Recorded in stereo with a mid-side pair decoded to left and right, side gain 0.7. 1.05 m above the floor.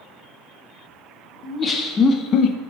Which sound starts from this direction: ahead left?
Laughter, at 1.4 s.